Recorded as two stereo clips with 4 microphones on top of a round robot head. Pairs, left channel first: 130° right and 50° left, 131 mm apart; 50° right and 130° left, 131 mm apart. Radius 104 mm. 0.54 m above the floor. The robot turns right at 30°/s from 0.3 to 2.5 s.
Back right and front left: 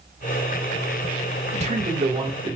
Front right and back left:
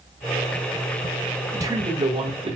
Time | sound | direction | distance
1.5 | a man speaking | 65° left | 2.5 m